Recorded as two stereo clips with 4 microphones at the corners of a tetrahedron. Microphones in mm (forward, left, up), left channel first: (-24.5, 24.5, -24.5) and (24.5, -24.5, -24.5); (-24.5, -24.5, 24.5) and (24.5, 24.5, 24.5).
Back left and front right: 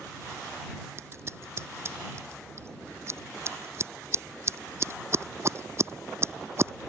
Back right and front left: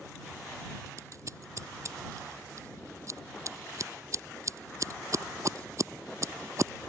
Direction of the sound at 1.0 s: 5° left.